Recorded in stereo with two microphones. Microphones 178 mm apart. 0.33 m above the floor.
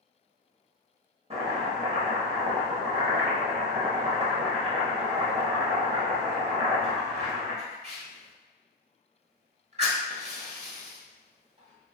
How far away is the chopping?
About 0.8 m.